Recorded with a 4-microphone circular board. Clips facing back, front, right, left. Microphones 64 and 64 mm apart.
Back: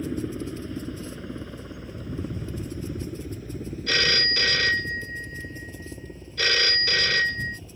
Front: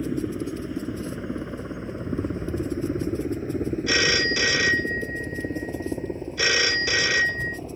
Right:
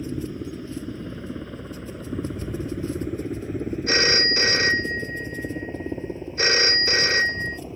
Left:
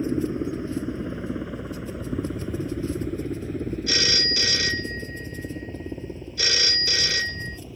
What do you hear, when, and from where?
0.0 s a helicopter: 70° left; by 7.8 s 40° right
3.9 s a phone ringing: 75° right